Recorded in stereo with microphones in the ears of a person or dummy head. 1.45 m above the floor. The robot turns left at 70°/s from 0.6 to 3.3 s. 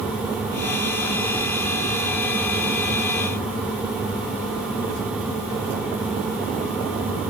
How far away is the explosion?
No explosion in this recording.